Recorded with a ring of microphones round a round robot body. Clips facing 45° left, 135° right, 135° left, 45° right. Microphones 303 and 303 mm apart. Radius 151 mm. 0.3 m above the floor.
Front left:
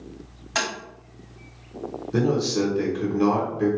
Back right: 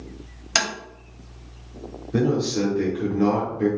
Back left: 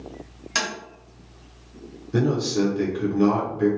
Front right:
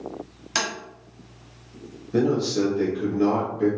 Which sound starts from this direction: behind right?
Tapping, at 0.6 s.